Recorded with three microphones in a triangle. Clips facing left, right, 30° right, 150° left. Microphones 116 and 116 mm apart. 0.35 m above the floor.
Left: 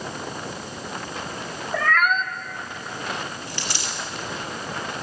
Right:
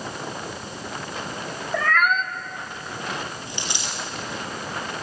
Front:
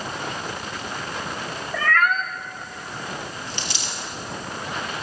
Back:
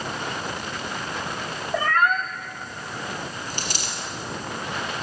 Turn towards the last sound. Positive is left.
turn(degrees=-160)